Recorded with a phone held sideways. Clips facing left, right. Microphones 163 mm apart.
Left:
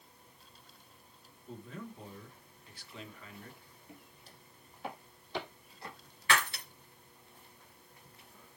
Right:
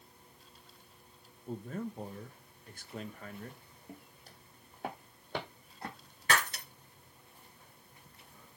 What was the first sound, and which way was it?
A man speaking, 45° right (ahead or behind).